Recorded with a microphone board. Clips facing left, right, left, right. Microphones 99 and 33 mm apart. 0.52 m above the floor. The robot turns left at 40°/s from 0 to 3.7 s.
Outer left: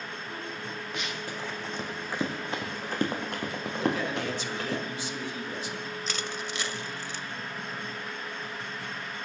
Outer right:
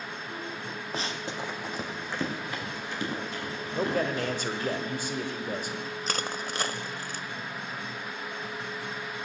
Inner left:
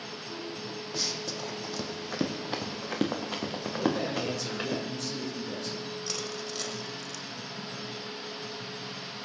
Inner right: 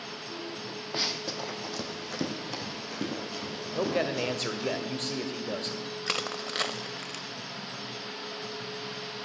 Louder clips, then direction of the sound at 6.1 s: Outer right 4 dB, inner right 4 dB; 45° right (ahead or behind).